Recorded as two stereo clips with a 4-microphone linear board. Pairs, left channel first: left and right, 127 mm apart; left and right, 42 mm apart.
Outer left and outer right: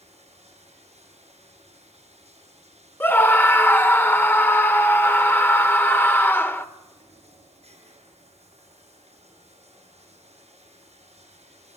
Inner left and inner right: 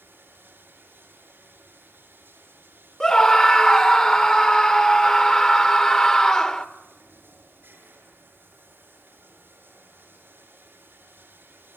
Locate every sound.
0.0 s running water: 55° right (ahead or behind), 6 m
3.0 s a scream: 15° left (ahead or behind), 1.0 m